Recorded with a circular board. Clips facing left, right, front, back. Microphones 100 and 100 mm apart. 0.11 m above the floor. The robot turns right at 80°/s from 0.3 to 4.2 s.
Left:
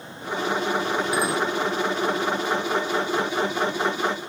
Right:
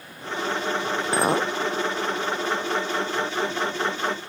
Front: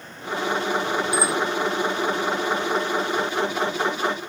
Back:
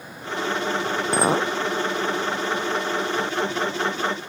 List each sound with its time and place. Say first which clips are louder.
1.1 s a clink: right 5 dB, back 6 dB; 150° right; by 1.5 s 120° right